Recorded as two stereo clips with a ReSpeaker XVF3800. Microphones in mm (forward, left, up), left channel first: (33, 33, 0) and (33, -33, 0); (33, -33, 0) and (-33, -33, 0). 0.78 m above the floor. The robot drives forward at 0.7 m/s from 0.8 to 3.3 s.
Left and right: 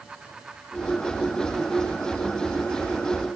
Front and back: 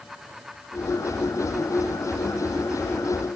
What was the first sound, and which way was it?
Only background noise.